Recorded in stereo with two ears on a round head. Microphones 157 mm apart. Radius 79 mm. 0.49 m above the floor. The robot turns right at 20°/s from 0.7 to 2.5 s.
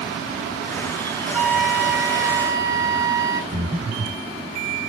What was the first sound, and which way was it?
A flute, centre (ahead or behind).